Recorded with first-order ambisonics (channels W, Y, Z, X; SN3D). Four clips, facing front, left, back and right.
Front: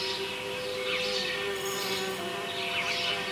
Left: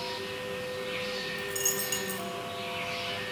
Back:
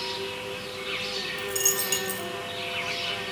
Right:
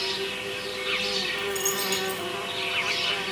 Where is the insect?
85° right, 1.0 m.